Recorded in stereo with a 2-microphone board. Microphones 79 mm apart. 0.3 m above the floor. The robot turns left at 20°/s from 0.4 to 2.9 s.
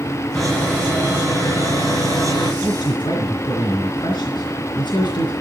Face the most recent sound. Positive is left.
turn(degrees=70)  # may be behind; listen again after turning